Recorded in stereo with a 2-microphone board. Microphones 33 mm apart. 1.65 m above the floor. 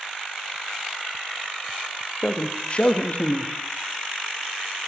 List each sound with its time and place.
2.2 s a man speaking: 35° left (ahead or behind), 0.5 m